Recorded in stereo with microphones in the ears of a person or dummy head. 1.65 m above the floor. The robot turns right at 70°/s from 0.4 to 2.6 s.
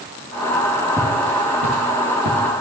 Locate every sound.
1.0 s footsteps: 15° right (ahead or behind), 3 m; by 2.4 s 55° right (ahead or behind), 3 m